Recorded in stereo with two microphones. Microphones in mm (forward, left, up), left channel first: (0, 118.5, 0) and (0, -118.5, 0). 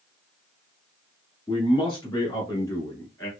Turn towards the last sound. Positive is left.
turn(degrees=10)  # may be behind; listen again after turning